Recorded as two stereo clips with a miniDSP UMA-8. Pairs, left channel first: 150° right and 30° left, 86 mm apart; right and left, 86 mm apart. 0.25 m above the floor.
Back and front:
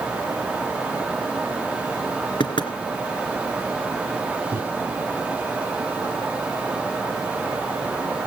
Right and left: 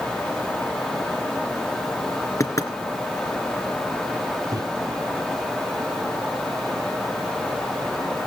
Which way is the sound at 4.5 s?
80° left.